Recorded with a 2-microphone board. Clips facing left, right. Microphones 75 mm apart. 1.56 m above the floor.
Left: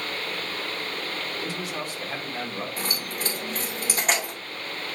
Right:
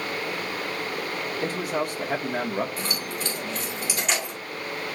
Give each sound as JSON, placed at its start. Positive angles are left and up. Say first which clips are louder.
{"t": 1.4, "sound": "a man speaking", "louder": "right 5 dB", "side_deg": -45, "distance_m": 1.9}
{"t": 2.8, "sound": "keys jangling", "louder": "right 1 dB", "side_deg": 40, "distance_m": 4.0}